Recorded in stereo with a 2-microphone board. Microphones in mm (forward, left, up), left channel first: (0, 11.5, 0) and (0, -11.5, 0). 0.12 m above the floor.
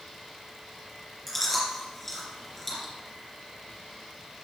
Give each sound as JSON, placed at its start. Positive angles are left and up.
{"t": 1.3, "sound": "chewing", "side_deg": 10, "distance_m": 3.0}